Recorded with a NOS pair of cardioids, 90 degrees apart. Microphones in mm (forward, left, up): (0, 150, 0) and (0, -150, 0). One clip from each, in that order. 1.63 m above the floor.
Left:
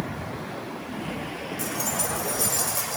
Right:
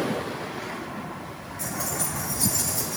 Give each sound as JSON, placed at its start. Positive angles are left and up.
{"t": 1.6, "sound": "keys jangling", "azimuth_deg": 35, "distance_m": 3.5}